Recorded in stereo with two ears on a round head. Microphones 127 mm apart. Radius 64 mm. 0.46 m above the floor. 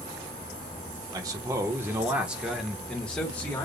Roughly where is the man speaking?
Right.